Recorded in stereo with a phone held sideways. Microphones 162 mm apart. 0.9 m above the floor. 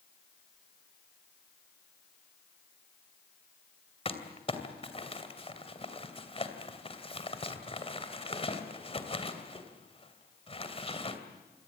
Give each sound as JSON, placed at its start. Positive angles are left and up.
{"t": 4.0, "sound": "crumpling", "side_deg": 35, "distance_m": 2.5}